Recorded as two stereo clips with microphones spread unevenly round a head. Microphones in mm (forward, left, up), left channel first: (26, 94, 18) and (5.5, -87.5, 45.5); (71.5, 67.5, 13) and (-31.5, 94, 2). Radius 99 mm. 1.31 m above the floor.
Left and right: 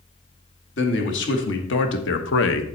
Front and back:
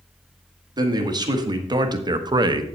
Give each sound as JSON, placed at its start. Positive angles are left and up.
{"t": 0.8, "sound": "a man speaking", "azimuth_deg": 115, "distance_m": 2.0}